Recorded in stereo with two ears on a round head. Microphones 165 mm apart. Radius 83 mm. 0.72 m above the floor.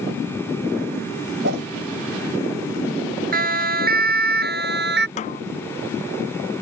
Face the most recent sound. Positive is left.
turn(degrees=35)  # may be behind; listen again after turning